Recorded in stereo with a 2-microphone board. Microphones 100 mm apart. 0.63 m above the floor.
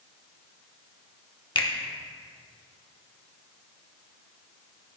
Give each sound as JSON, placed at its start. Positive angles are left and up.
{"t": 1.6, "sound": "a finger snap", "side_deg": 55, "distance_m": 0.9}